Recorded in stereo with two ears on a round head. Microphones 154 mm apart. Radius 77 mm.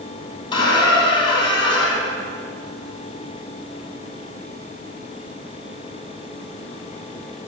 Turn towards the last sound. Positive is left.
turn(degrees=30)  # may be behind; listen again after turning